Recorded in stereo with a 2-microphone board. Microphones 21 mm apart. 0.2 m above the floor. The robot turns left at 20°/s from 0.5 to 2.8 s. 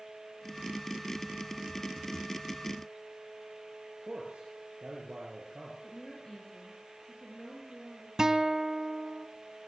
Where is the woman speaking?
30° left (ahead or behind), 4 m.